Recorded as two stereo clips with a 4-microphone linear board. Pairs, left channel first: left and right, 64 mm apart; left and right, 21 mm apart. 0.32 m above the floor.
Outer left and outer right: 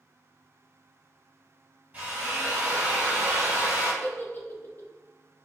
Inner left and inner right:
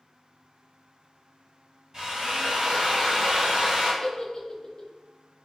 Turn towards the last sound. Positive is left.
turn(degrees=35)  # may be behind; listen again after turning